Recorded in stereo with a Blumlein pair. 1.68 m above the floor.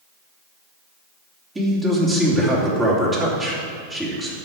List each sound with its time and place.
1.6 s a man speaking: 10° right, 3.5 m